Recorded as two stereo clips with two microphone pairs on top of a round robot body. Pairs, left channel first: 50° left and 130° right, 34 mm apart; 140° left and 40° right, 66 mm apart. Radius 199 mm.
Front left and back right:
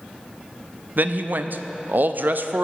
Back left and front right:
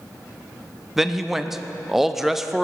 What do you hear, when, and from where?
1.0 s a man speaking: 125° right, 0.7 m